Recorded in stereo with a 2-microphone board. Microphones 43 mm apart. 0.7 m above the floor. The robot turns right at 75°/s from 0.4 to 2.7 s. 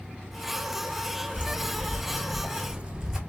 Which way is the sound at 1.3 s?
20° right (ahead or behind).